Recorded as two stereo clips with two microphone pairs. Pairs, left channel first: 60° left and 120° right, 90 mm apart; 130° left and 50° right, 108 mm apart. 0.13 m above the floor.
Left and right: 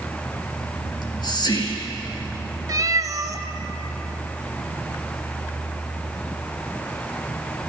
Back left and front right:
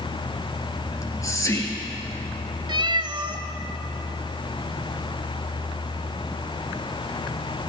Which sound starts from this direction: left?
Whispering, at 0.9 s.